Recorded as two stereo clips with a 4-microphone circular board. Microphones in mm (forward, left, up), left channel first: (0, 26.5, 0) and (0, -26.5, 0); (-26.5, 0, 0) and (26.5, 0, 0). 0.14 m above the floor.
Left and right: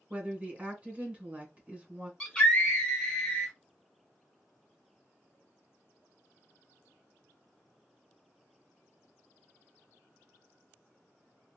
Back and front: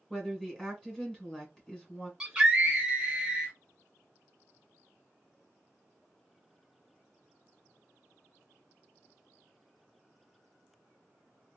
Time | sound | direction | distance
0.1 | a woman speaking | 115° right | 1.4 m
2.2 | a scream | 45° left | 1.1 m